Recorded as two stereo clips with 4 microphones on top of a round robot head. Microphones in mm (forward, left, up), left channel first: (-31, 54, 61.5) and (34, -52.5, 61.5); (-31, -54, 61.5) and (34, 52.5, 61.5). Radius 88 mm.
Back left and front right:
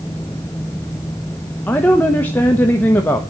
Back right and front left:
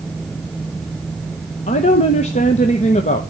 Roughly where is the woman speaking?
Behind.